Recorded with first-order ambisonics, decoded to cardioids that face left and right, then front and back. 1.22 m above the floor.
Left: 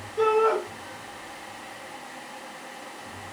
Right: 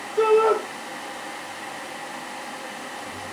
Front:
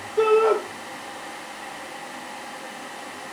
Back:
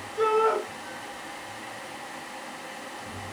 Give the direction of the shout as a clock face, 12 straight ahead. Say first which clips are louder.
Right 3 dB, front 5 dB; 1 o'clock.